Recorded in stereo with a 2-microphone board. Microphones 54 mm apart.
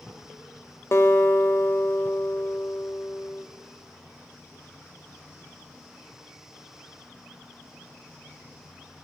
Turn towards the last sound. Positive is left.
turn(degrees=60)  # may be behind; listen again after turning